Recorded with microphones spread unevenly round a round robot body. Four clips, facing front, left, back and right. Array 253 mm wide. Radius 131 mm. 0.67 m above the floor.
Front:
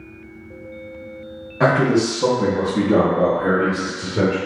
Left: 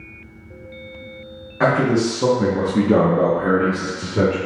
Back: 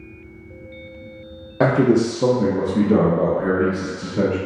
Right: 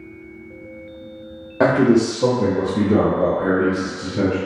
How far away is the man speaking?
About 0.6 m.